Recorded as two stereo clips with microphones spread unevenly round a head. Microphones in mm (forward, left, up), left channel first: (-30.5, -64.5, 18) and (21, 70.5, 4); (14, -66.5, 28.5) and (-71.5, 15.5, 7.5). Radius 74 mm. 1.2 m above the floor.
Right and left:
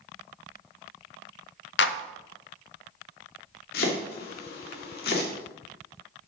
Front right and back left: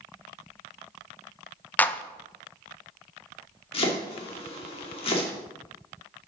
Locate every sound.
1.8 s a clap: 120° right, 0.7 m
3.7 s chopping: 85° right, 2.5 m